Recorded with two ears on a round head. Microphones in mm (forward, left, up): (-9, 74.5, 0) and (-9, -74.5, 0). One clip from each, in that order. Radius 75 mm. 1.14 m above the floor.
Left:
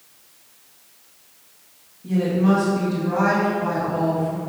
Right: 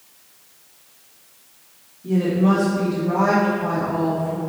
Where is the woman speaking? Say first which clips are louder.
Right 1 dB; centre (ahead or behind), 2 m; by 4.4 s 25° left (ahead or behind), 3 m.